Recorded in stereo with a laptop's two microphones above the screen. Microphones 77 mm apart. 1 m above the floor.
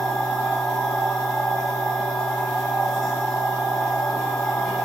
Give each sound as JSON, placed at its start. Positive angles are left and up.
{"t": 0.0, "sound": "a machine running", "side_deg": 0, "distance_m": 3.0}